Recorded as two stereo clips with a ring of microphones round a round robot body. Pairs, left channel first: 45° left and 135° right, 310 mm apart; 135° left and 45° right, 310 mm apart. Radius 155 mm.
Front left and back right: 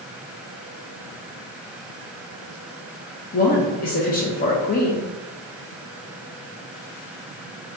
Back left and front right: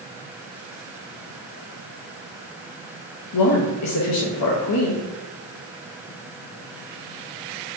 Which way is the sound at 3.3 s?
105° left.